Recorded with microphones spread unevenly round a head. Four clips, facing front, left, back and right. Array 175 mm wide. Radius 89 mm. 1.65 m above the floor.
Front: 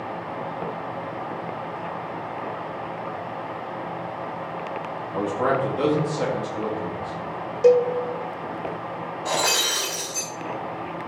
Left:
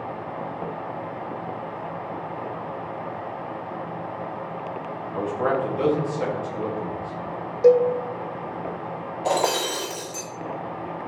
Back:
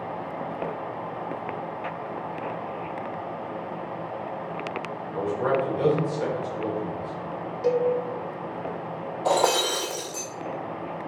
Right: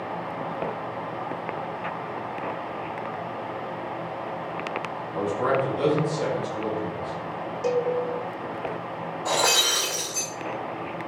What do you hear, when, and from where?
5.1 s a man speaking: 10° left, 4 m
7.6 s a cowbell: 35° left, 0.9 m
9.2 s breaking glass: 130° left, 2.5 m